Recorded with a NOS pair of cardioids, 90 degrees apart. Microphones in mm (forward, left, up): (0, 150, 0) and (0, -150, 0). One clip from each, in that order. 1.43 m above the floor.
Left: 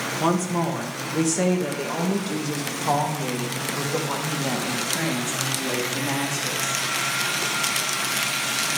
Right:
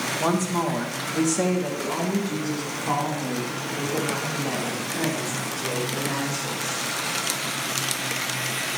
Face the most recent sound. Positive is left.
turn(degrees=55)